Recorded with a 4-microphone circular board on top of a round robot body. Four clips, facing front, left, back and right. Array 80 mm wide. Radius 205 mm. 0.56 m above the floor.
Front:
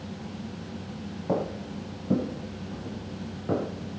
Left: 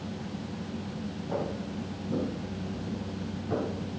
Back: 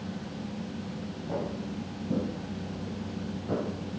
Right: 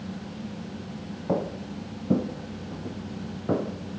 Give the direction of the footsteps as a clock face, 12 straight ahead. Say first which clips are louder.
Right 6 dB, front 5 dB; 2 o'clock.